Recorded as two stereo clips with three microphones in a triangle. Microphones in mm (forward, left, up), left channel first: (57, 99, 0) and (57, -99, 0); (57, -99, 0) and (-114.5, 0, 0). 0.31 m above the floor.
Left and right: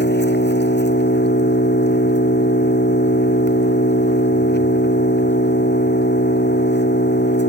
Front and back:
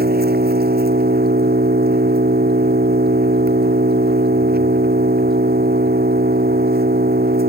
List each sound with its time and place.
0.0 s an engine running: 115° left